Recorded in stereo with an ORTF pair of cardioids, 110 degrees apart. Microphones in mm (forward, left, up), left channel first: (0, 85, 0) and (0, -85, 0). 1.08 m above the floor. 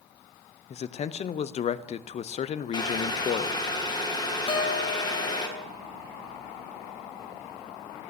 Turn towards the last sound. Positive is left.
turn(degrees=30)